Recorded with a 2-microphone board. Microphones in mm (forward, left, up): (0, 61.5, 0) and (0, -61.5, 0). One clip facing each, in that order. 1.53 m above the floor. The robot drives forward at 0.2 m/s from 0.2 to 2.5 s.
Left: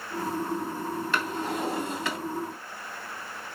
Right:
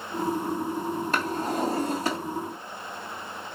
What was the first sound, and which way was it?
A drawer, 40° right (ahead or behind).